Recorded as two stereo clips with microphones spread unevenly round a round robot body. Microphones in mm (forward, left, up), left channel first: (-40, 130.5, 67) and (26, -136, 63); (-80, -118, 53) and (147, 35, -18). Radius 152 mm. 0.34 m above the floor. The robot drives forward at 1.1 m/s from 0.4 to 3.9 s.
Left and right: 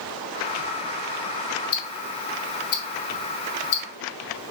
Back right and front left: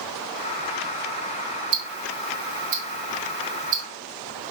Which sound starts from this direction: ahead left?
Ticking, at 1.7 s.